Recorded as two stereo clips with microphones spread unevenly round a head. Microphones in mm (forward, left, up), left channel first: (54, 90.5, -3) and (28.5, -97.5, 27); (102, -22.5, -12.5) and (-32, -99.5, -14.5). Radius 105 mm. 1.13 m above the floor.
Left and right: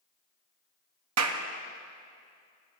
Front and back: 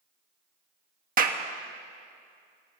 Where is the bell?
No bell in this recording.